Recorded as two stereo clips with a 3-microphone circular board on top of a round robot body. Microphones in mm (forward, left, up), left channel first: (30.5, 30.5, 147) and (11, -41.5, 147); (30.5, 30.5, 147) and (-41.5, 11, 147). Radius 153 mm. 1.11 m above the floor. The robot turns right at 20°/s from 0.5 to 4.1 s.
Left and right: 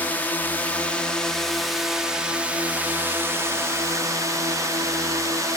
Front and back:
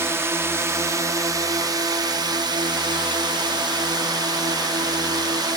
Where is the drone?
140° left; by 5.6 s 145° right.